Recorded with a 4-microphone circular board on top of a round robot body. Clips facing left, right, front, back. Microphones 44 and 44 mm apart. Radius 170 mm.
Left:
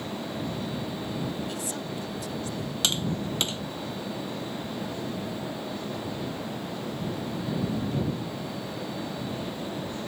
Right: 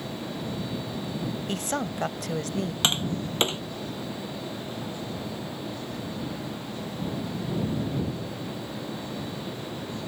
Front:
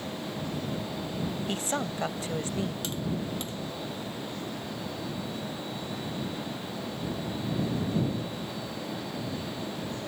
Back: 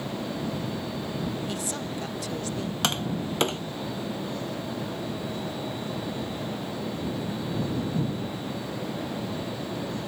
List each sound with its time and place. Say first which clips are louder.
1.5 s a woman speaking: right 4 dB, front 1 dB; 55° right; by 2.7 s 70° right
2.8 s tapping: even, back 4 dB; 155° right